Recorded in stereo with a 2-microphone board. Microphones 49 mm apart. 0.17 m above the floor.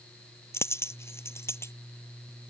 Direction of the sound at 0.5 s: 60° left (ahead or behind).